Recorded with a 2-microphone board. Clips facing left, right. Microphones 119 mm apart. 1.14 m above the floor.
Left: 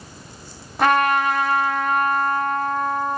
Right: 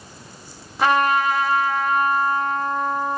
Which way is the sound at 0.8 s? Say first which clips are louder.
Left 1 dB; 55° left (ahead or behind).